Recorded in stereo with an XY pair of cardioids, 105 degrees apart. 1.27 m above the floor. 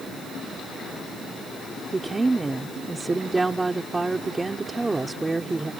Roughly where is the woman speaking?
Ahead.